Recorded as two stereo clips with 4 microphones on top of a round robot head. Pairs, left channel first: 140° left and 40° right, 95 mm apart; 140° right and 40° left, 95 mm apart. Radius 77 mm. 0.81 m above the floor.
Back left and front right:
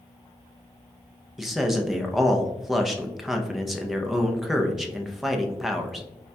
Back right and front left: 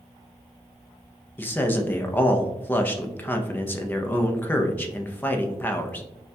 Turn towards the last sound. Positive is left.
turn(degrees=-125)